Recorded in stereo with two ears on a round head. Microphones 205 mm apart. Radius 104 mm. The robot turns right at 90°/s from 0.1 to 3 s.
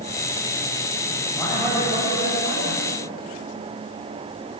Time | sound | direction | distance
1.3 | a man speaking | 160° left | 8.5 m